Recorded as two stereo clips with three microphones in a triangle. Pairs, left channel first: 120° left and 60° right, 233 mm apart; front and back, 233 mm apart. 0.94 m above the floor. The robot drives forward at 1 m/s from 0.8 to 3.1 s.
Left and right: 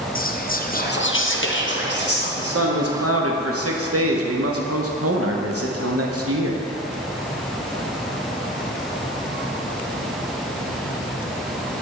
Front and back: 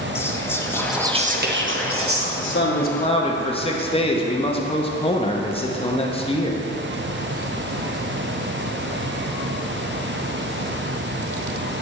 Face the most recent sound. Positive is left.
turn(degrees=-70)